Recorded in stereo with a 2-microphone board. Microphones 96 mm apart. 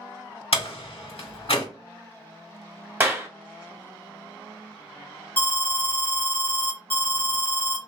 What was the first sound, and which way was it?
A door slam, 80° left.